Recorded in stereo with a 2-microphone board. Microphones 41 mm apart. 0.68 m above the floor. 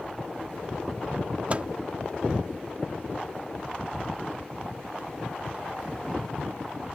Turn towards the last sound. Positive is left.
turn(degrees=-30)  # may be behind; listen again after turning